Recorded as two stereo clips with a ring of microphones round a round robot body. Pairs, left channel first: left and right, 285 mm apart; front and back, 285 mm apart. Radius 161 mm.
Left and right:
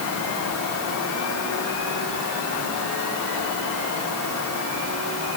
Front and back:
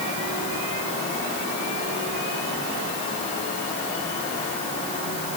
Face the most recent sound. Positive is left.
No sound to turn to.